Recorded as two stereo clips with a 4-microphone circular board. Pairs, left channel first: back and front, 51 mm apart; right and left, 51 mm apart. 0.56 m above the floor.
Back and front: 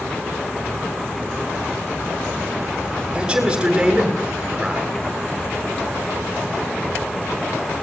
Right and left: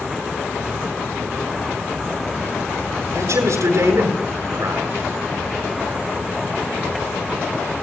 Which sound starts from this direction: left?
A man speaking, at 3.1 s.